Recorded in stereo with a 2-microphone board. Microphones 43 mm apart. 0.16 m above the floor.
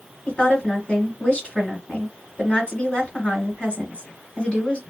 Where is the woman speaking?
30° left (ahead or behind), 1.8 m.